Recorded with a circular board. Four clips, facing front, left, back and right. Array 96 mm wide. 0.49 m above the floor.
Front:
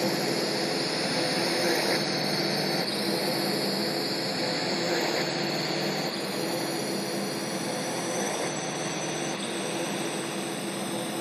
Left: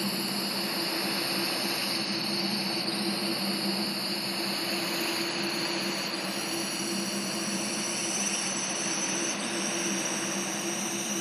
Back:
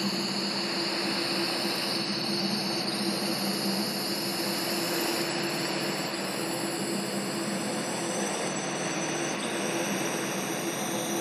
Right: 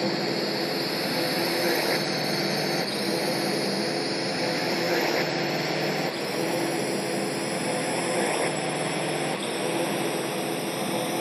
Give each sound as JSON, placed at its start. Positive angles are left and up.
{"t": 0.0, "sound": "a drone", "azimuth_deg": -50}